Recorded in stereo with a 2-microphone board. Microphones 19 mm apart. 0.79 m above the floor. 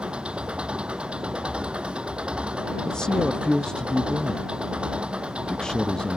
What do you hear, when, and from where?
0.0 s an engine running: 85° right
2.9 s a man speaking: 50° left (ahead or behind)